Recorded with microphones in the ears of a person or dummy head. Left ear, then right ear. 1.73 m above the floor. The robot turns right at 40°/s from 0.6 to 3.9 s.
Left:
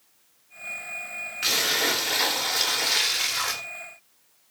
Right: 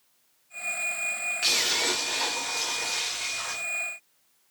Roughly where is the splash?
Ahead.